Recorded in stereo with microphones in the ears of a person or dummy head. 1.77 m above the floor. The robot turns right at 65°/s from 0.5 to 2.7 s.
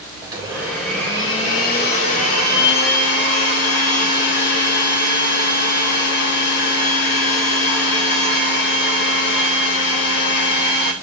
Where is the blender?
25° right, 3.5 m; by 10.9 s 120° left, 3.5 m.